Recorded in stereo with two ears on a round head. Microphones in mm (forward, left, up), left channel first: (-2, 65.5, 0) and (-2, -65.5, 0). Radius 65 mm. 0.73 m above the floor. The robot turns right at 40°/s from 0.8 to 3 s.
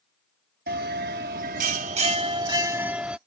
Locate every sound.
0.7 s a bell: 95° right; by 3.2 s 10° right